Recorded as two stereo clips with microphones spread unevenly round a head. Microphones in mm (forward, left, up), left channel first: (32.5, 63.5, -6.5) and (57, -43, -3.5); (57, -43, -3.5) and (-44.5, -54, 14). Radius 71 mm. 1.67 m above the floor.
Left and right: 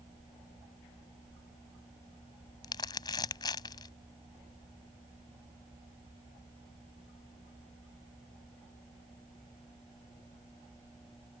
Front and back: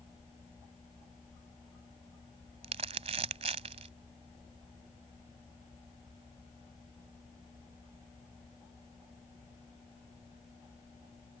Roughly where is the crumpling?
Behind.